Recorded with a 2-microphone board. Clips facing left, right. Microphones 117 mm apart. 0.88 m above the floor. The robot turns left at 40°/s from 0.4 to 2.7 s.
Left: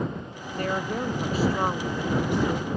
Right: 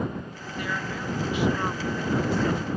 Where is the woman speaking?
95° left; by 2.7 s 10° left.